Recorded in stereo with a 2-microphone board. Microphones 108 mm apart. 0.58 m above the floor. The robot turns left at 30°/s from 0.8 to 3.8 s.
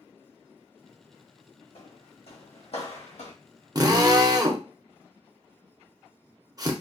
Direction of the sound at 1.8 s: 60° left (ahead or behind).